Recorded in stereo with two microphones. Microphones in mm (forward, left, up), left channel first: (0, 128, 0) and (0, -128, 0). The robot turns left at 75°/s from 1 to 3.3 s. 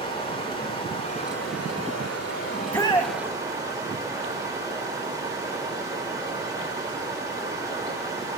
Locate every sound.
0.0 s running water: 160° left, 3 m; by 8.4 s 15° right, 3 m
2.5 s a shout: 170° right, 1.2 m; by 3.2 s 140° left, 1.2 m